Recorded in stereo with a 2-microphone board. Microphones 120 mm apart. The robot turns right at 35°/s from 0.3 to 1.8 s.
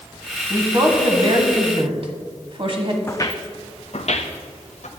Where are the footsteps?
20° left (ahead or behind), 0.7 m; by 4.9 s 75° left (ahead or behind), 1.6 m.